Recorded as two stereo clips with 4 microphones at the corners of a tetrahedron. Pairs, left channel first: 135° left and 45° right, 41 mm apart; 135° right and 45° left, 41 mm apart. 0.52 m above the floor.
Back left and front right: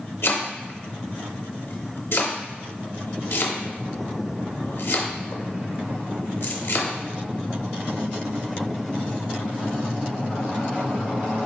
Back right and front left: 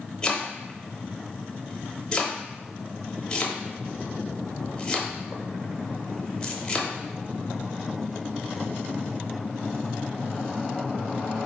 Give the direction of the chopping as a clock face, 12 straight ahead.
7 o'clock.